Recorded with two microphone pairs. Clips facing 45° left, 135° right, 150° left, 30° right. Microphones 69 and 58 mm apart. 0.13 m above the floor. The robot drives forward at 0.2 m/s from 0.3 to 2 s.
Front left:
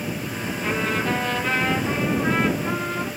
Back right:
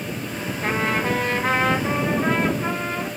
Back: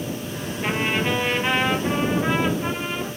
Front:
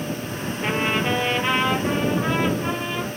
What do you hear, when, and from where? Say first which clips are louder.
0.6 s a trumpet: back right 2 dB, even; 130° right, 0.9 m; by 3.1 s 140° right, 1.1 m